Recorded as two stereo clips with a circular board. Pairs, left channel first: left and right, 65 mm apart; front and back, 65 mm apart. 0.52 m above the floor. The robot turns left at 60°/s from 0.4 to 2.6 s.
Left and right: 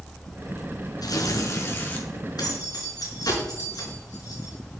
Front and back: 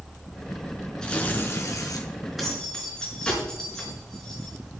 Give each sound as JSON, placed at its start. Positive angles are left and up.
{"t": 1.0, "sound": "tearing paper", "azimuth_deg": 80, "distance_m": 2.5}
{"t": 2.4, "sound": "keys jangling", "azimuth_deg": 95, "distance_m": 5.0}